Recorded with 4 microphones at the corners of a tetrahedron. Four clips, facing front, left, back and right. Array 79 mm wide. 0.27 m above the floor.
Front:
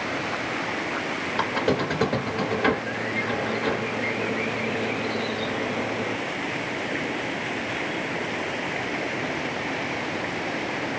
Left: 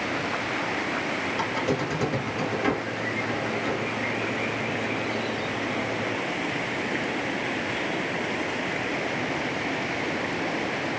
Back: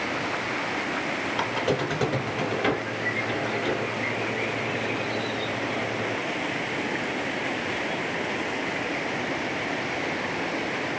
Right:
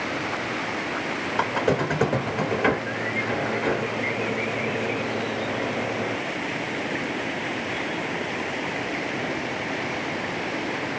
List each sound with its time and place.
1.4 s a squeak: 80° right, 0.9 m